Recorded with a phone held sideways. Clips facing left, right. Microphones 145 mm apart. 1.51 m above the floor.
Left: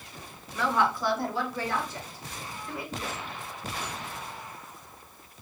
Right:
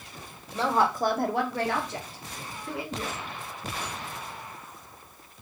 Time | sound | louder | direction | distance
0.5 | a woman speaking | right 2 dB | 25° right (ahead or behind) | 1.0 m